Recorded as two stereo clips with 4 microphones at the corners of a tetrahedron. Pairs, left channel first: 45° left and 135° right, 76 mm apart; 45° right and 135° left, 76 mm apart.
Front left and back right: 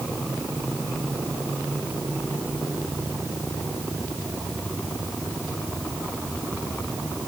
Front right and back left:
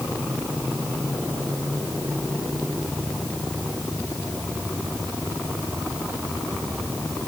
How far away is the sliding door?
No sliding door in this recording.